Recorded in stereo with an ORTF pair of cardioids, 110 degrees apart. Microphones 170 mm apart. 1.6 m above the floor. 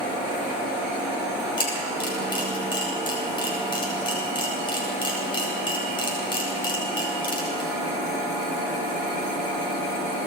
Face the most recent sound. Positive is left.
turn(degrees=30)